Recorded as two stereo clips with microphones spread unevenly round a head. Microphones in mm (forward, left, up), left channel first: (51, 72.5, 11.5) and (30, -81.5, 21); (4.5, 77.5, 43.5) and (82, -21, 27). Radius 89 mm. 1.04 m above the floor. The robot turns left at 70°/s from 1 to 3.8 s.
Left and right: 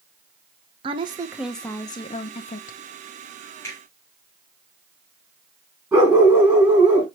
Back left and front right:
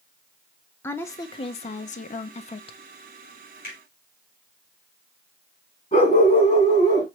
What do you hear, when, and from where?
0.8 s a woman speaking: 155° right, 0.6 m; by 2.8 s 80° left, 0.6 m
3.6 s a finger snap: 160° left, 3 m; by 3.8 s 150° left, 3 m
5.9 s a dog barking: 175° left, 4 m